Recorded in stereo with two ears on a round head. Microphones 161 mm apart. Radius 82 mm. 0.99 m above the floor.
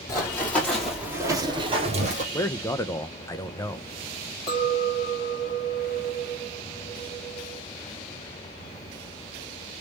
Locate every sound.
0.1 s running footsteps: 20° left (ahead or behind), 2 m; by 2.2 s 45° right (ahead or behind), 1.9 m
2.3 s a man speaking: 15° left (ahead or behind), 0.6 m
4.5 s a clink: 30° left (ahead or behind), 1.4 m